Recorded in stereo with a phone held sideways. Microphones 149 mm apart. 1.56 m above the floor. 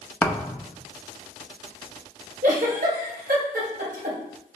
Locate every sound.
0.2 s a thud: 10° left (ahead or behind), 1.2 m
2.4 s a giggle: 65° right (ahead or behind), 5 m